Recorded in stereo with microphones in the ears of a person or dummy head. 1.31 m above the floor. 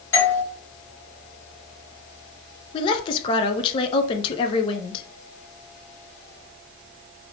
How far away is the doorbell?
About 1.4 m.